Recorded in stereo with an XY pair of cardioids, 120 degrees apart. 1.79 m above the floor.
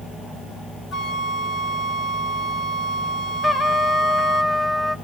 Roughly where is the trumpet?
Ahead.